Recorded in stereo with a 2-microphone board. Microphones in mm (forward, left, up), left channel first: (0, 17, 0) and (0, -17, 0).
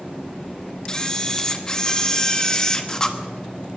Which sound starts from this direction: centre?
A camera shutter, at 0.9 s.